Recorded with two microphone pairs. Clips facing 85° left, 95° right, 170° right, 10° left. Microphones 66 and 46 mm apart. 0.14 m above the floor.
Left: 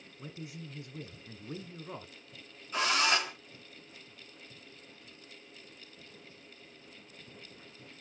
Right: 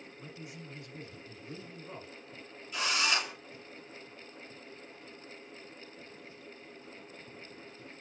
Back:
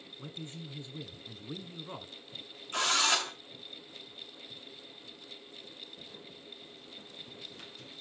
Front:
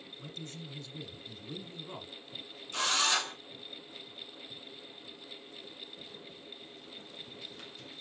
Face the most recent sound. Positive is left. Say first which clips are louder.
# left 3 dB, back 1 dB
turn(degrees=140)